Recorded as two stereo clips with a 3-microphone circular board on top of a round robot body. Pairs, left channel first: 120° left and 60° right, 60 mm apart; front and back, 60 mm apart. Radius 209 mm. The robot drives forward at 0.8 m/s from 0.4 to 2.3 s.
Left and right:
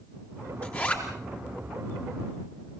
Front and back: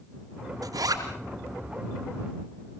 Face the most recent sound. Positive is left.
turn(degrees=-170)